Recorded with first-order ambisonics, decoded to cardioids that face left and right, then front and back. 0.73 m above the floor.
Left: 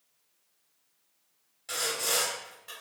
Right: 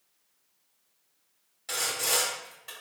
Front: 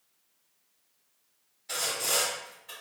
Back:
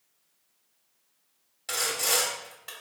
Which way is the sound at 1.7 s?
165° right.